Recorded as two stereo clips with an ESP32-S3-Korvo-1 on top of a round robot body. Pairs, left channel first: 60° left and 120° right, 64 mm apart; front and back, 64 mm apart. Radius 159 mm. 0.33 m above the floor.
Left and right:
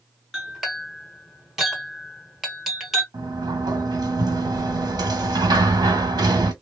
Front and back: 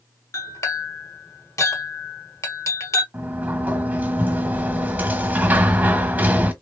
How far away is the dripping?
I don't hear dripping.